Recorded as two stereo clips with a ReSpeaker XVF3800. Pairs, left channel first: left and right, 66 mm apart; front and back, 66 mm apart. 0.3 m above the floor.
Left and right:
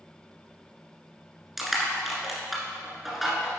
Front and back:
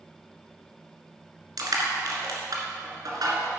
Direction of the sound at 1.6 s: 175° right.